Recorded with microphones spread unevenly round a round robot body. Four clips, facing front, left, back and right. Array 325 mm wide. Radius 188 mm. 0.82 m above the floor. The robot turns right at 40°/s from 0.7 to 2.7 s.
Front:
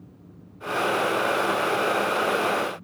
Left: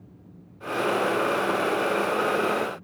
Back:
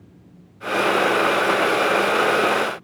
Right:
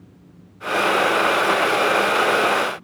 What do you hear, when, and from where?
Only background noise.